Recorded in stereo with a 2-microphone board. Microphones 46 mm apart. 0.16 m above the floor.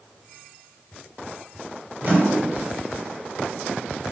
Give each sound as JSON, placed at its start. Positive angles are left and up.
{"t": 2.0, "sound": "a microwave", "side_deg": -35, "distance_m": 1.7}